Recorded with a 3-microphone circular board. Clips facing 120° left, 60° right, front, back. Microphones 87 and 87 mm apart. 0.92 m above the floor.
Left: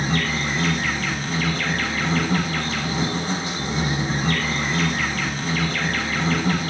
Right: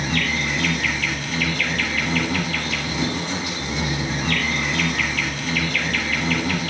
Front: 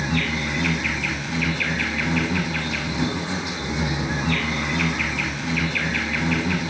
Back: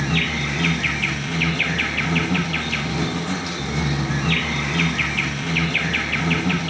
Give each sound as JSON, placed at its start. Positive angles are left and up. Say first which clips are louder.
{"t": 0.0, "sound": "an insect", "louder": "even, back 1 dB", "azimuth_deg": 180, "distance_m": 7.0}